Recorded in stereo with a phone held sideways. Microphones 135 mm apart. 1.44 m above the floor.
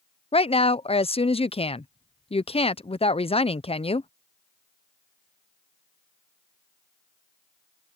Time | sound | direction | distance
0.3 | a woman speaking | 45° left (ahead or behind) | ?